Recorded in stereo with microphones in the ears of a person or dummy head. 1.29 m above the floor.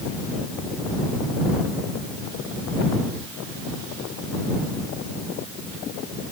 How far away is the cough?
I don't hear a cough.